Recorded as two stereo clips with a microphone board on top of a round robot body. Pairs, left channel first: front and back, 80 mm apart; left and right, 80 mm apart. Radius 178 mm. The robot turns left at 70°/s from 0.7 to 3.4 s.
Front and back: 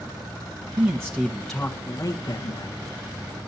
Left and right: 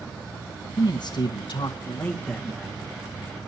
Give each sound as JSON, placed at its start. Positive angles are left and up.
{"t": 0.8, "sound": "a man speaking", "azimuth_deg": 135, "distance_m": 1.9}